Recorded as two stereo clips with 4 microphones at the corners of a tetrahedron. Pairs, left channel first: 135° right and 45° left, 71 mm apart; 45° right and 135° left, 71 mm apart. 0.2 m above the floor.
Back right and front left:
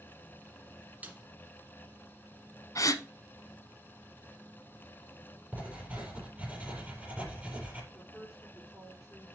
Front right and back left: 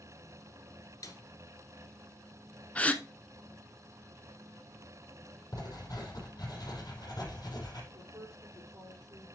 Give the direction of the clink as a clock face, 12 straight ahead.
I don't hear a clink.